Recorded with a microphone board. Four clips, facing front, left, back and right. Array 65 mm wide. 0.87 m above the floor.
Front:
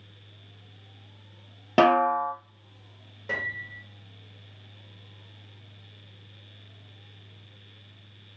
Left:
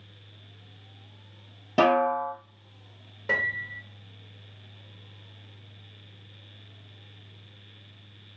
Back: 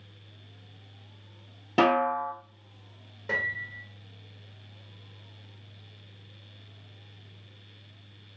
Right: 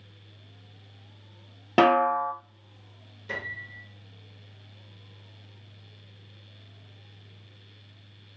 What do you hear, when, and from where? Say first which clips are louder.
1.8 s a snare drum: right 1 dB, front 3 dB; 50° right, 0.8 m
3.3 s a piano: left 8 dB, back 1 dB; 95° left, 0.8 m